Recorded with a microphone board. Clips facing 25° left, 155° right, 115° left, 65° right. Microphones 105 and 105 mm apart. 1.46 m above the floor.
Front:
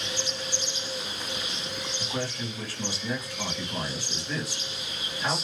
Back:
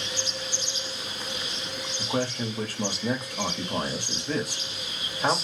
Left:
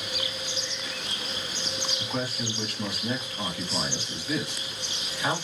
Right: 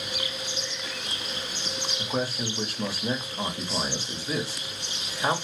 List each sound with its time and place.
2.0 s a man speaking: 120° right, 1.4 m